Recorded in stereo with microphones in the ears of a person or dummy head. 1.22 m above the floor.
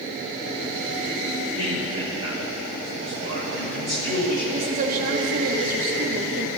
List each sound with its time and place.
1.6 s a man speaking: 30° right (ahead or behind), 4 m; by 4.4 s 40° right (ahead or behind), 8 m
4.5 s a woman speaking: 45° right (ahead or behind), 1.5 m